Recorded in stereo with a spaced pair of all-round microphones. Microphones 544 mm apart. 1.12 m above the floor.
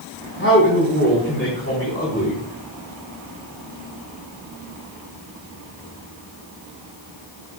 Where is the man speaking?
25° left (ahead or behind), 3.5 m.